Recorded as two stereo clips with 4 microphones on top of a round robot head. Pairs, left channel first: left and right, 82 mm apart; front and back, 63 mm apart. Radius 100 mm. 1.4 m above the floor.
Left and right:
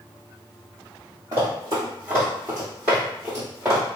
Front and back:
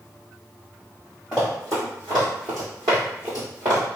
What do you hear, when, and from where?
1.3 s running footsteps: 110° right, 1.5 m; by 3.8 s 155° right, 2 m